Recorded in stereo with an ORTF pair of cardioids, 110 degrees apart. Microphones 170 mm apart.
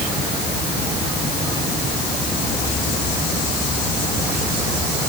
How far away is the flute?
I don't hear a flute.